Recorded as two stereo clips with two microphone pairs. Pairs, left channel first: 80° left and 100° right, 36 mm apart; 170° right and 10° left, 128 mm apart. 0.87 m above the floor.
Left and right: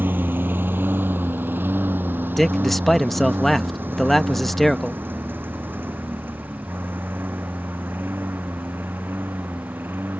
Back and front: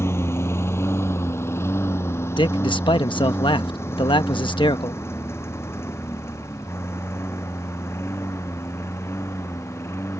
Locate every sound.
0.0 s a lawn mower: 100° right
2.4 s a man speaking: 165° left